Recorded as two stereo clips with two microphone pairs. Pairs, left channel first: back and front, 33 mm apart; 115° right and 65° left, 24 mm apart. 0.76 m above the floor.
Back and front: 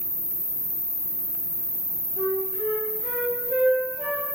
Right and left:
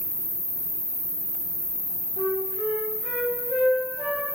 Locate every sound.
0.0 s an insect: 55° right, 1.4 m
2.2 s a flute: 100° right, 0.9 m